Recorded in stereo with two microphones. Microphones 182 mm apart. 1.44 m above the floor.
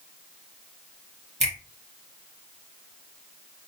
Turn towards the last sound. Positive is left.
turn(degrees=-40)  # may be behind; listen again after turning